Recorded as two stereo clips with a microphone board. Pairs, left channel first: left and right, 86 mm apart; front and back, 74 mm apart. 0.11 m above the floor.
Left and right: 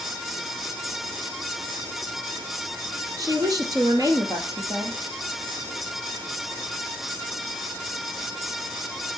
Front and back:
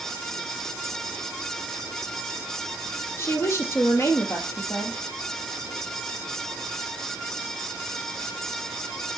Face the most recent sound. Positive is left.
turn(degrees=-50)